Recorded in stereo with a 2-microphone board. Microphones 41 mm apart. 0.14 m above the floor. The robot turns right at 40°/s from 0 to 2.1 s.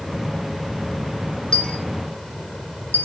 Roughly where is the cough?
No cough in this recording.